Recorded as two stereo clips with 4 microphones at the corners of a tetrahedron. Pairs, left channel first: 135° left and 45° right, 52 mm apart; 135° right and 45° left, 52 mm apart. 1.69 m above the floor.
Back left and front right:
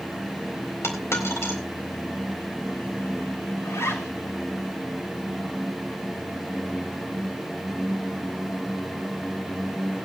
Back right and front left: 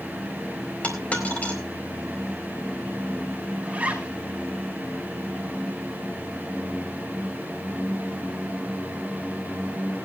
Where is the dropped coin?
165° left, 4 m.